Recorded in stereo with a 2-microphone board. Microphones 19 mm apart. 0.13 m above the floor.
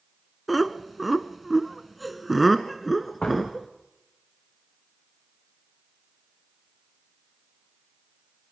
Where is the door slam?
55° left (ahead or behind), 7 m.